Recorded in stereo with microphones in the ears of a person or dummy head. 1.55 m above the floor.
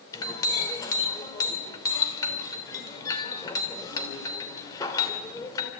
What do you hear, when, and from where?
0.1 s a clink: 20° left (ahead or behind), 3 m